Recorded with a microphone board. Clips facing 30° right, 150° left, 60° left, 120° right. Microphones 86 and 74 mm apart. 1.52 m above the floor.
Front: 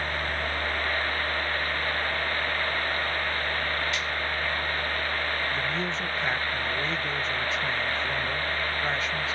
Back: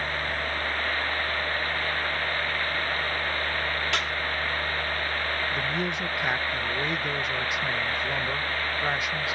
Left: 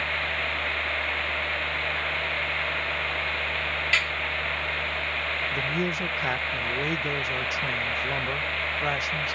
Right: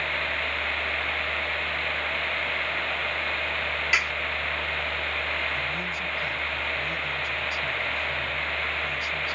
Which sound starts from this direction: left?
A man speaking, at 5.5 s.